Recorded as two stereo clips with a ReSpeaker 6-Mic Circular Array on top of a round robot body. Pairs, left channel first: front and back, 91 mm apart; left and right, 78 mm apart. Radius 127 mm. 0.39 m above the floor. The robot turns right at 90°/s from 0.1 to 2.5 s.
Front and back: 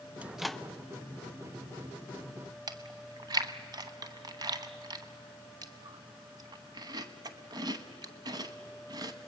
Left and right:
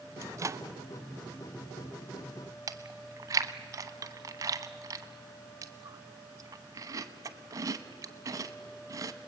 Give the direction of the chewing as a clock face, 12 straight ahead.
5 o'clock.